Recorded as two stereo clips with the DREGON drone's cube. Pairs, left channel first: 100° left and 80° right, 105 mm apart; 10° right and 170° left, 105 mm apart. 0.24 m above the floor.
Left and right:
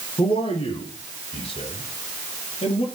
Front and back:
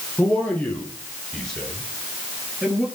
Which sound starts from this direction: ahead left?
A man speaking, at 0.2 s.